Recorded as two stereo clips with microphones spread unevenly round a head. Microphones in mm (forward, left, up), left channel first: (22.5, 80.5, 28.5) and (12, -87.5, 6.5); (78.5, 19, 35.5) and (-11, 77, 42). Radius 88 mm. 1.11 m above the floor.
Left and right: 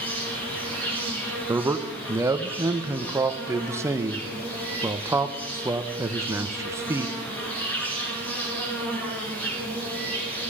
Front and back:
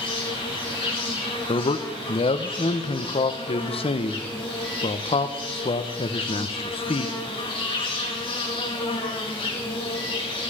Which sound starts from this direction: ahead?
An insect, at 0.0 s.